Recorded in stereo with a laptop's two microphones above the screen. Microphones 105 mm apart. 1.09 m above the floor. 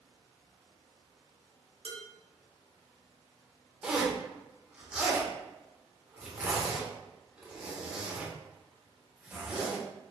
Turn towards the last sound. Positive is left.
turn(degrees=-10)  # may be behind; listen again after turning